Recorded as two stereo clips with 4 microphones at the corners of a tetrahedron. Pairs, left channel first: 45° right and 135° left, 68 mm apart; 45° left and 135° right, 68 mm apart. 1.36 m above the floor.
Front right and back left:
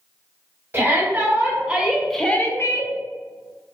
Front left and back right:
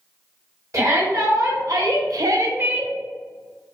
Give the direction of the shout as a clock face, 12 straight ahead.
6 o'clock.